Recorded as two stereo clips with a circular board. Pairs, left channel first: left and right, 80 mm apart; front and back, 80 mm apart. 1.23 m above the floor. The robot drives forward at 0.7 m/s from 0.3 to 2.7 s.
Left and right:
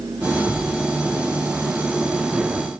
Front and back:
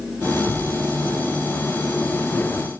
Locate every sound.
0.5 s a thud: 170° right, 1.5 m; by 0.8 s 175° right, 1.7 m